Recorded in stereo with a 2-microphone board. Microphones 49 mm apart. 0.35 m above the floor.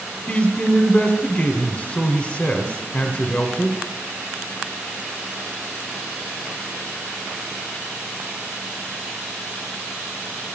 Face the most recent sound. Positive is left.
turn(degrees=25)  # may be behind; listen again after turning